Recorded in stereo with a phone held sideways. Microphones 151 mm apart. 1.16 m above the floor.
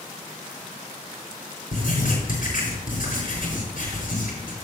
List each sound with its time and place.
1.7 s writing: 70° left (ahead or behind), 4.5 m